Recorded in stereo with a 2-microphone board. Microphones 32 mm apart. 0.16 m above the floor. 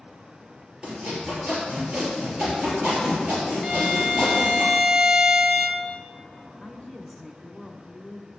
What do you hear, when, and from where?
0.8 s sawing: 30° right (ahead or behind), 3.5 m
3.6 s a violin: 15° right (ahead or behind), 0.6 m
6.6 s a woman speaking: 5° right (ahead or behind), 1.1 m